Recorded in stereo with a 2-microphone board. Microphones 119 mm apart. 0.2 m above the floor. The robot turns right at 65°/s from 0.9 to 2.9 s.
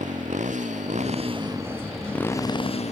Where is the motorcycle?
70° right; by 2.9 s 60° left.